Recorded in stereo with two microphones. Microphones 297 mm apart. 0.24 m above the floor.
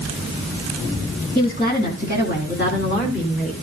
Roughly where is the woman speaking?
Left.